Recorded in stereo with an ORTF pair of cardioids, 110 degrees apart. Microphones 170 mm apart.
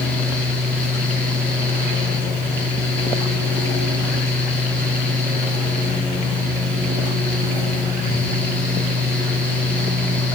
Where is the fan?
10° left, 2.5 m.